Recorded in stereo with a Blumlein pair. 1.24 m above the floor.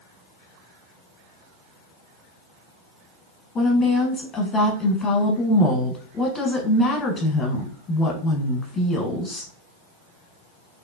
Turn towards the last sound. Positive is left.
turn(degrees=25)